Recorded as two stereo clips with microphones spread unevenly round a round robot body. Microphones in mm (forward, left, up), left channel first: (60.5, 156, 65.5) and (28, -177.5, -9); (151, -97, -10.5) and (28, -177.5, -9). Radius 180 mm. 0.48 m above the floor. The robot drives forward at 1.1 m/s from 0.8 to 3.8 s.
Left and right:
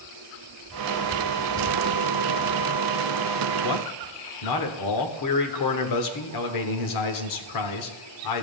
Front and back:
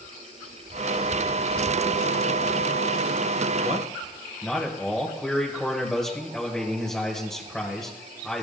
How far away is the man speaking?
About 1.2 m.